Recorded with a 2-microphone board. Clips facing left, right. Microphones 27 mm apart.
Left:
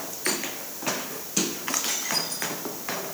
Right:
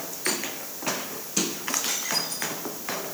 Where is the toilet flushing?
No toilet flushing in this recording.